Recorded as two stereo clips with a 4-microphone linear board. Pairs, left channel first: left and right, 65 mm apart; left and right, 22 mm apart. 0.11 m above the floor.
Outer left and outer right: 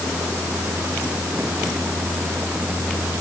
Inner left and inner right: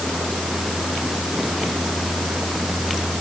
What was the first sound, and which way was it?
Only background noise.